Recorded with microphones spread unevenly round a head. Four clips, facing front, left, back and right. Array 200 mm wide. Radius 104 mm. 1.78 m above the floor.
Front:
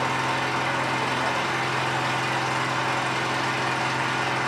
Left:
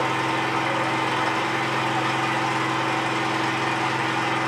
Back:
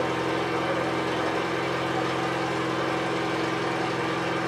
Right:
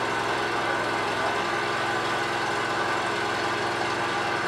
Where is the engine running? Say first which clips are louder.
Left 3 dB, front 1 dB; 50° left, 3.5 m.